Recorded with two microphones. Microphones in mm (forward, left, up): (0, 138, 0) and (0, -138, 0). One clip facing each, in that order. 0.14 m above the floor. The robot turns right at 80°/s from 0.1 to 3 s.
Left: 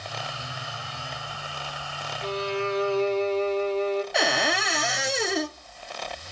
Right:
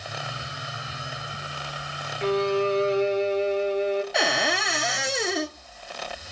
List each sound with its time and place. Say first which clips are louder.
2.2 s a violin: right 6 dB; 75° right, 1.0 m; by 4.0 s 15° right, 1.0 m
4.1 s a cupboard door: even; centre (ahead or behind), 0.8 m